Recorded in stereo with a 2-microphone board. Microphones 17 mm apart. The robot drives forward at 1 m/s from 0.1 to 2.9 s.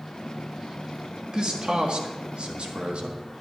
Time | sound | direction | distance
1.3 | a man speaking | 55° right (ahead or behind) | 1.8 m